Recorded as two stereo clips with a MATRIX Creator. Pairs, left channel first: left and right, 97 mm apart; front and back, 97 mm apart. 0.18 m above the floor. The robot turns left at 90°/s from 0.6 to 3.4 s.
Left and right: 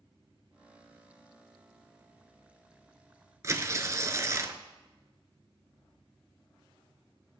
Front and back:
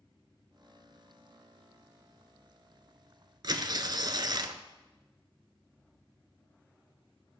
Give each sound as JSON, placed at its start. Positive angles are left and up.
{"t": 3.4, "sound": "tearing paper", "azimuth_deg": -145, "distance_m": 0.9}